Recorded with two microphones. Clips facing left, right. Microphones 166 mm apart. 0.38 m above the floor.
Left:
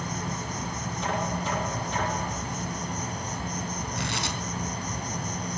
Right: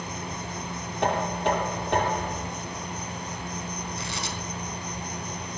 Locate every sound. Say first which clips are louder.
0.0 s an insect: left 2 dB; 45° left (ahead or behind), 2 m
1.0 s knocking: right 5 dB; 65° right (ahead or behind), 7.5 m
4.0 s tearing paper: left 2 dB; 65° left (ahead or behind), 3.5 m